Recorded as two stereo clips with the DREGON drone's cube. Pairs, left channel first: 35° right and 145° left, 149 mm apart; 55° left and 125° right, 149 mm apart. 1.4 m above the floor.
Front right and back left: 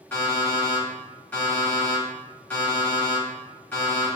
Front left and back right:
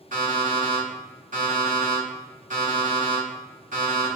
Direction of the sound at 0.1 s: 110° right.